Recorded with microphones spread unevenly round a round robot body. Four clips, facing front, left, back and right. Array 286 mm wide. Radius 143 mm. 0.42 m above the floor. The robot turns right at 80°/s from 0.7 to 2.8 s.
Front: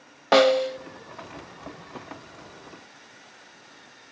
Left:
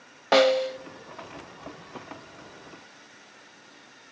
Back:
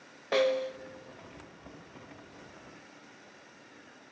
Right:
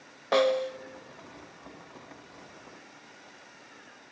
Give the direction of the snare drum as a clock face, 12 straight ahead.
11 o'clock.